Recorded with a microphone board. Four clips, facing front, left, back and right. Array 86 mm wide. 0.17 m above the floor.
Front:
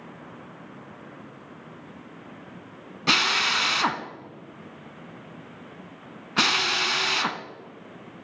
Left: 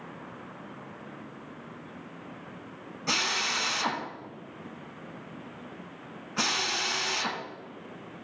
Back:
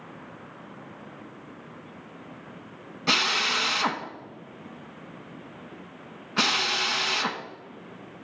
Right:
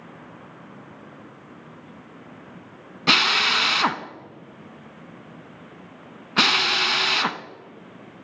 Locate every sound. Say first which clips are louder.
3.1 s a drill: right 9 dB, front 2 dB; 75° right, 0.6 m